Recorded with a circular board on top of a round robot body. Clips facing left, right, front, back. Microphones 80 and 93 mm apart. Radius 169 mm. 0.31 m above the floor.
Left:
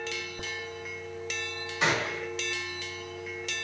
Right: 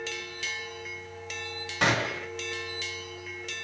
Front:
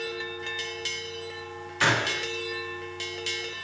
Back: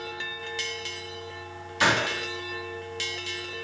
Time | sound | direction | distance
1.8 | a gunshot | 105° right | 3 m